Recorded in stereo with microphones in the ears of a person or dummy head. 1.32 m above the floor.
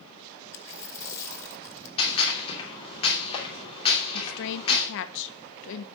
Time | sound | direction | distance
0.5 | a dropped coin | 20° left (ahead or behind) | 1.9 m
2.0 | a gunshot | 25° left (ahead or behind) | 3 m
4.1 | a woman speaking | 65° left (ahead or behind) | 1.2 m